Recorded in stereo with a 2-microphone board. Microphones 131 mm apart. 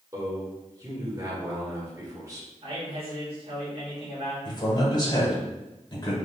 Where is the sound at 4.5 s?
30° left (ahead or behind), 1.5 m.